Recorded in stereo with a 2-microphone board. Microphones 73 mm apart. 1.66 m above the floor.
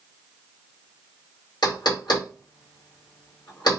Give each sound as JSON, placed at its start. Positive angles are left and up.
{"t": 1.6, "sound": "knocking", "side_deg": 75, "distance_m": 2.0}